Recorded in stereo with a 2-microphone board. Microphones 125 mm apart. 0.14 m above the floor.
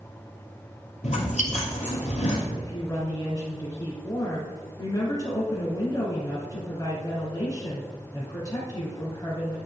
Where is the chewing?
65° left (ahead or behind), 2.5 m.